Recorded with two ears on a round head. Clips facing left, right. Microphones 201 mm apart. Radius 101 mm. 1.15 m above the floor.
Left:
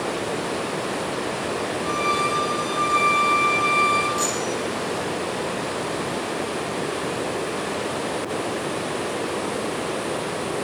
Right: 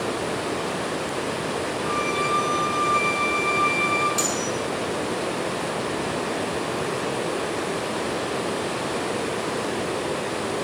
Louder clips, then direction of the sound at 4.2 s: Left 1 dB; 30° right (ahead or behind).